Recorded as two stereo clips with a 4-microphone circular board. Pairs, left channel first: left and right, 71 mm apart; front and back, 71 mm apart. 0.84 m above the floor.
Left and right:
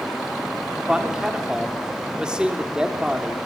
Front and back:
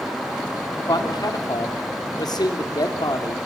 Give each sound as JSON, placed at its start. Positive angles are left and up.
{"t": 0.8, "sound": "a man speaking", "azimuth_deg": -10, "distance_m": 2.5}